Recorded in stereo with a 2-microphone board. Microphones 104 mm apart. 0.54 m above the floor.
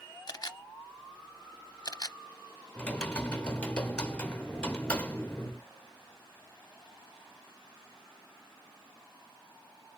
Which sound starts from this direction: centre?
Typing on a keyboard, at 2.8 s.